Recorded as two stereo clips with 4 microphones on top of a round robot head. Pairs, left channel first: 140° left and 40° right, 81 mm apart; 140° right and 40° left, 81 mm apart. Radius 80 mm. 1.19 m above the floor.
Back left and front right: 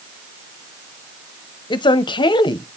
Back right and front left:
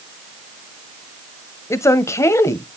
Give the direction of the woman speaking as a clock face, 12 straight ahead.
7 o'clock.